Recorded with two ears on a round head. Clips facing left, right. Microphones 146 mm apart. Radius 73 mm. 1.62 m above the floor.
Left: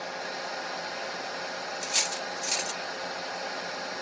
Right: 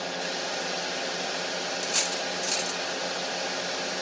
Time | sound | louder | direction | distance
0.0 | a drone | right 3 dB | 35° right (ahead or behind) | ?
1.8 | cutlery clinking | right 3 dB | 5° left (ahead or behind) | ?